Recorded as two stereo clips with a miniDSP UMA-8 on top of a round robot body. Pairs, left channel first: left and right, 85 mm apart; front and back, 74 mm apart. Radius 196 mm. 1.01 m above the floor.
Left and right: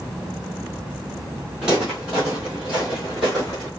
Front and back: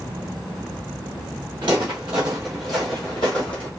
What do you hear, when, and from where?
1.6 s footsteps: 170° right, 1.1 m; by 3.7 s straight ahead, 1.2 m